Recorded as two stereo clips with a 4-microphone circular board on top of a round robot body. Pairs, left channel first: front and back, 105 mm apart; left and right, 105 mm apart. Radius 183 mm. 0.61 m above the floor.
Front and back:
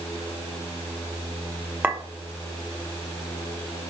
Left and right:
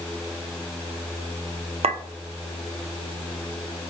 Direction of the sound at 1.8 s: 105° right.